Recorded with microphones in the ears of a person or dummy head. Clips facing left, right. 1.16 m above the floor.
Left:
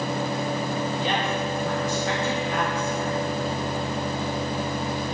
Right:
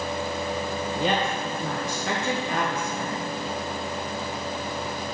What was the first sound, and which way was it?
A woman speaking, 45° right (ahead or behind).